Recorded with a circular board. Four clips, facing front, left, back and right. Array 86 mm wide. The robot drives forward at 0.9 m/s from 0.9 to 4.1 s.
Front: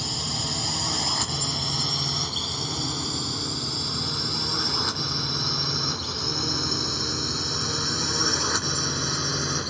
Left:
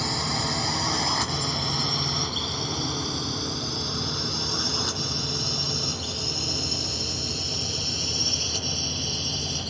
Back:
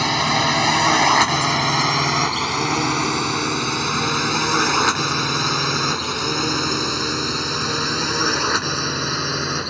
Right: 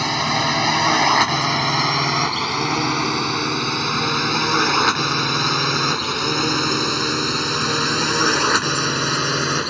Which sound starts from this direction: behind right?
A drone, at 0.0 s.